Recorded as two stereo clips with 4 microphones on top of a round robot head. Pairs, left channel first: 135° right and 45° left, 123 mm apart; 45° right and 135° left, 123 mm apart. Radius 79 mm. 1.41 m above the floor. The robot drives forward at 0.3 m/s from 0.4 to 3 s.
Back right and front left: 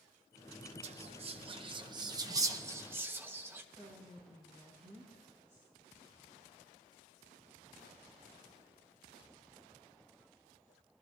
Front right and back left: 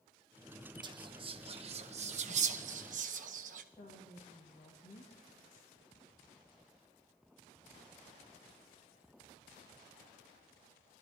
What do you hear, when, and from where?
0.8 s whispering: 80° left, 0.9 m; by 3.6 s 120° left, 1.0 m
3.7 s a woman speaking: 25° right, 2.0 m